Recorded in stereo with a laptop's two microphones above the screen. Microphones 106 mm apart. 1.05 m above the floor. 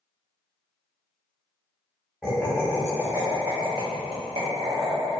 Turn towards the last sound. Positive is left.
turn(degrees=-65)  # may be behind; listen again after turning